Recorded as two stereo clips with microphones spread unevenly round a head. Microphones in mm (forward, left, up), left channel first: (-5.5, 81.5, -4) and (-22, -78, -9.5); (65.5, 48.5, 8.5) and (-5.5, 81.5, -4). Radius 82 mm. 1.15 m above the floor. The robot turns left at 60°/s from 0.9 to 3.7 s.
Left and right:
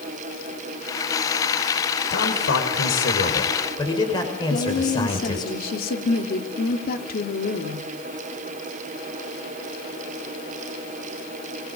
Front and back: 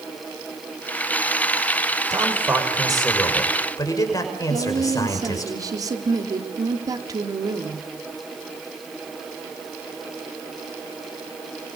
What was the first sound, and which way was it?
A man speaking, 115° left.